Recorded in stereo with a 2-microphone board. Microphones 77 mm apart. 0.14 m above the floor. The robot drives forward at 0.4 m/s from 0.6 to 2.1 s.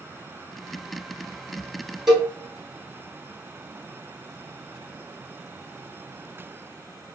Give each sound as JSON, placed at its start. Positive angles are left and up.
{"t": 2.1, "sound": "a cowbell", "side_deg": -5, "distance_m": 1.2}